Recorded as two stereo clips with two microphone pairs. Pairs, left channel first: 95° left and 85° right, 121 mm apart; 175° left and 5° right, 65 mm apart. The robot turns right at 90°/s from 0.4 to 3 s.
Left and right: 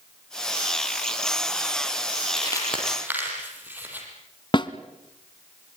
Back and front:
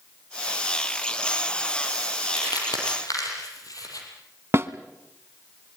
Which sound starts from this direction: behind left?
Crumpling, at 2.4 s.